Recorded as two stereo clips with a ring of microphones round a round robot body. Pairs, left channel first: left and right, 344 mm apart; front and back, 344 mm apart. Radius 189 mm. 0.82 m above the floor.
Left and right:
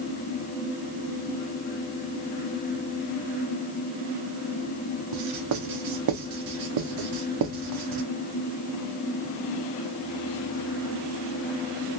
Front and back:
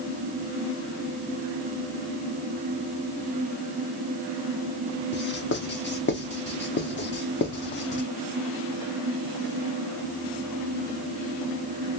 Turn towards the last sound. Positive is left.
turn(degrees=-60)